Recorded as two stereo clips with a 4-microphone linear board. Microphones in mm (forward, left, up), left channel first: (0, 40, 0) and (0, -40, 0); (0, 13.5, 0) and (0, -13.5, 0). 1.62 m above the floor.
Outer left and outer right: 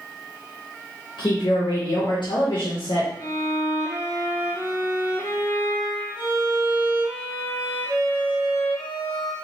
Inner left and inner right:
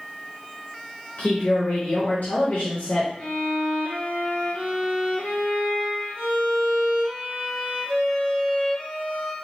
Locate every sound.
1.2 s a woman speaking: 80° left, 0.9 m
3.2 s a violin: 55° left (ahead or behind), 1.8 m